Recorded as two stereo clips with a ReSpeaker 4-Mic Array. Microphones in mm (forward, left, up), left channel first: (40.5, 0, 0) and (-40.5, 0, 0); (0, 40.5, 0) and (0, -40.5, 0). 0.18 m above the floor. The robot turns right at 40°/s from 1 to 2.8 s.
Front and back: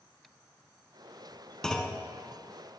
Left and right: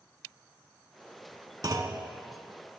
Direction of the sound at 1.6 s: 80° right.